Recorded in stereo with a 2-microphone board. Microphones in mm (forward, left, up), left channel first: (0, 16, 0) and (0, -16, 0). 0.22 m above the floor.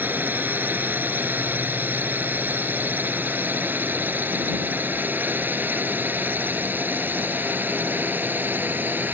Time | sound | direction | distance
0.0 | a drone | 65° right (ahead or behind) | ?